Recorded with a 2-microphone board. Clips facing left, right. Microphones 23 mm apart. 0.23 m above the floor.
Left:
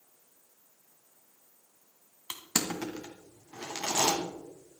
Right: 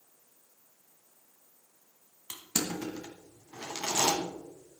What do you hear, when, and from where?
2.3 s crushing: 30° left (ahead or behind), 2.5 m